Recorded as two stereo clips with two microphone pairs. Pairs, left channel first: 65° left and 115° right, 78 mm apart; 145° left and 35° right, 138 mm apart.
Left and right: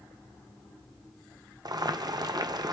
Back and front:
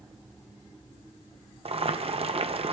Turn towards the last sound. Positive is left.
turn(degrees=-80)